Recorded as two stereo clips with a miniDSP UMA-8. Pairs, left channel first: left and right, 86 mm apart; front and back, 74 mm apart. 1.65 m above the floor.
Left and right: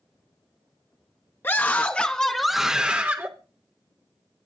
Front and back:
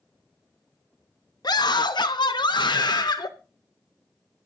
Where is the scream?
25° left, 1.2 m; by 3.3 s 30° right, 1.0 m.